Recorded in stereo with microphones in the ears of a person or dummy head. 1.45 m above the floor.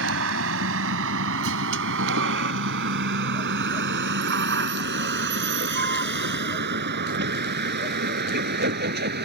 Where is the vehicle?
70° right (ahead or behind); by 9.3 s 50° right (ahead or behind).